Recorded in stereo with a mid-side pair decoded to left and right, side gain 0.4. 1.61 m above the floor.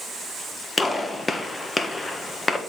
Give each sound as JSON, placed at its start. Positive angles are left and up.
{"t": 0.8, "sound": "a gunshot", "azimuth_deg": 25, "distance_m": 1.4}